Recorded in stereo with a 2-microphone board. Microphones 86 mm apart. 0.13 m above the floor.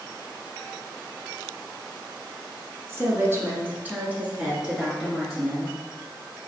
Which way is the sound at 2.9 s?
30° right (ahead or behind).